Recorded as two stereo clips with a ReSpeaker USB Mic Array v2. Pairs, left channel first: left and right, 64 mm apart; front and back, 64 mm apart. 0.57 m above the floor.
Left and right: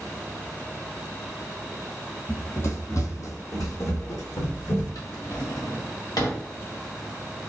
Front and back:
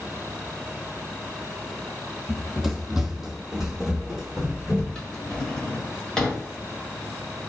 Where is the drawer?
80° left, 1.3 m.